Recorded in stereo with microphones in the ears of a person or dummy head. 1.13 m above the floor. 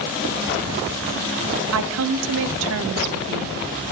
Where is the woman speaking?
70° right (ahead or behind), 0.5 m.